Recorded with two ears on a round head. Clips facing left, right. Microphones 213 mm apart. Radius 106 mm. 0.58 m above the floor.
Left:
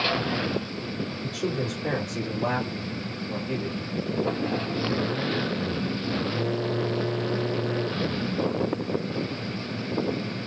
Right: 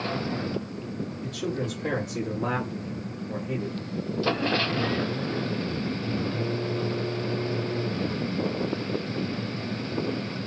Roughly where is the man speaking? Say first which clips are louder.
Left 1 dB; centre.